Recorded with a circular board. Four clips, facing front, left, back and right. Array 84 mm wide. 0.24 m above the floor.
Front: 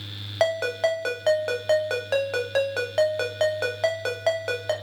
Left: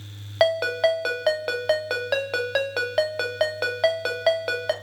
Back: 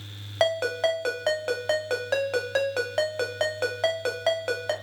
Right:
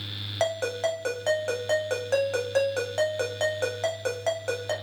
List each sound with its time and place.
0.4 s a ringtone: 80° left, 0.5 m